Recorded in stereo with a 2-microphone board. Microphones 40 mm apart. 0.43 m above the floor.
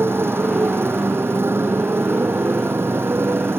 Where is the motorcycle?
75° right (ahead or behind).